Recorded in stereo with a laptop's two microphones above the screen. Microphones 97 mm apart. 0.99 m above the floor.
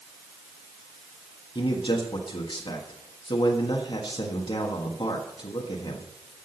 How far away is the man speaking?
About 1.4 m.